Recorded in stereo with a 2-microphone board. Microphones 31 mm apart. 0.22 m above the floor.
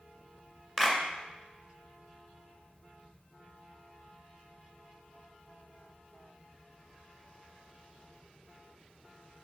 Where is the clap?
5° left (ahead or behind), 1.8 m.